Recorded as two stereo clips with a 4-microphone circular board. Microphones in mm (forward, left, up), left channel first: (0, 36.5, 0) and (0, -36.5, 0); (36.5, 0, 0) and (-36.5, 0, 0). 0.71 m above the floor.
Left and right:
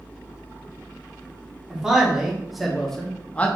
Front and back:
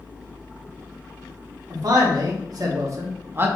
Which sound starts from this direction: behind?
A man speaking, at 1.7 s.